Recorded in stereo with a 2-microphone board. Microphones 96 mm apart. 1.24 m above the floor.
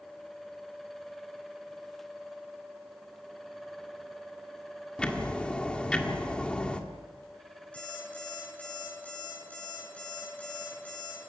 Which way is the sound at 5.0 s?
10° left (ahead or behind).